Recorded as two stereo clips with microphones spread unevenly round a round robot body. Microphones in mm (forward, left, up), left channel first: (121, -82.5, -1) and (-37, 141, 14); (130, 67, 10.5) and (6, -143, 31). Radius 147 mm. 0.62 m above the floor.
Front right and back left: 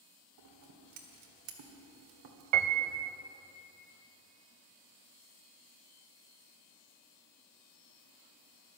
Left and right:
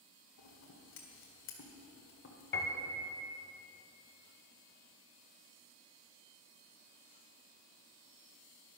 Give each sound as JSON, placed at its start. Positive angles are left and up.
{"t": 0.4, "sound": "scissors", "azimuth_deg": 100, "distance_m": 1.6}
{"t": 2.5, "sound": "a piano", "azimuth_deg": 120, "distance_m": 0.6}